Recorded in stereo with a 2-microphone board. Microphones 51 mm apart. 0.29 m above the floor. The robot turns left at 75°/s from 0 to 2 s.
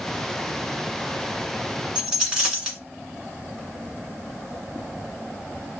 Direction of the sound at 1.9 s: 20° right (ahead or behind).